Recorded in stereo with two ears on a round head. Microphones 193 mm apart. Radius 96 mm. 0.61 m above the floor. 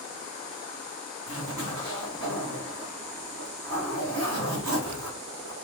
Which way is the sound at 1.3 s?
75° right (ahead or behind).